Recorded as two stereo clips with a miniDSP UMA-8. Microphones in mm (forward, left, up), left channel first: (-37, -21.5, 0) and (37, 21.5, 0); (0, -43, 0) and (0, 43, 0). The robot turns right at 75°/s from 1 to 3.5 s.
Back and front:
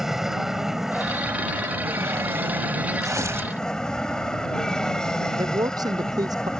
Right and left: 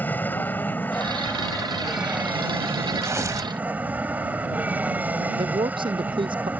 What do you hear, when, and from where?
0.0 s an aircraft: 50° right; by 6.6 s 135° left
3.0 s tearing paper: 45° left; by 3.5 s 85° left
5.4 s a man speaking: 75° left